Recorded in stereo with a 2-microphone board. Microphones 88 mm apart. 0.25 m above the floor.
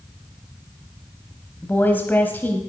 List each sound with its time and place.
1.6 s a woman speaking: 20° left (ahead or behind), 1.0 m